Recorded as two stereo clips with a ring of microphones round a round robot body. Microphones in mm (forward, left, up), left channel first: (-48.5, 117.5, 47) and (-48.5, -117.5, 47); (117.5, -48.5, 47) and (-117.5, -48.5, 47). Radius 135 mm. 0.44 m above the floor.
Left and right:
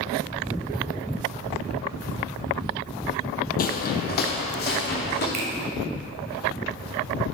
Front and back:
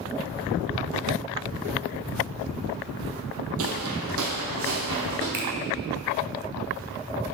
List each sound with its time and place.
3.6 s footsteps: 140° left, 0.9 m
5.3 s a finger snap: 140° right, 1.8 m